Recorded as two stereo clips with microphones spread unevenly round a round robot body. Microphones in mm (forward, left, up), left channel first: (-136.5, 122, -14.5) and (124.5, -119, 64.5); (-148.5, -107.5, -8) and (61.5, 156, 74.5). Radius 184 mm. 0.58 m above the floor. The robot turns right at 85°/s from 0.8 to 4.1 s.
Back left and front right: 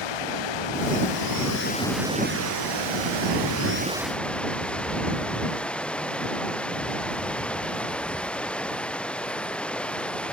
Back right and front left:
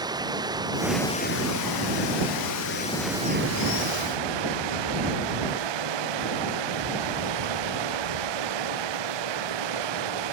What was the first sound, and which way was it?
Running water, 130° left.